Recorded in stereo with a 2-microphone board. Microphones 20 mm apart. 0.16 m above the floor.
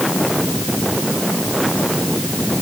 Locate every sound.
Only background noise.